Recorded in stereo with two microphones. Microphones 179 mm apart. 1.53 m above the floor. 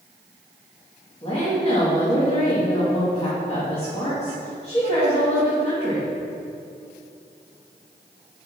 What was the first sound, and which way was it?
A woman speaking, 25° left (ahead or behind).